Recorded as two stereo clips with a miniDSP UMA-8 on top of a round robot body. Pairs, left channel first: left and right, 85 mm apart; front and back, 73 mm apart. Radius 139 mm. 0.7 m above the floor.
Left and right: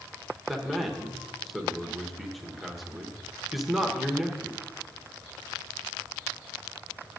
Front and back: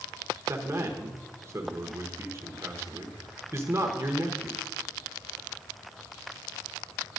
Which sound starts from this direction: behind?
A man speaking, at 0.5 s.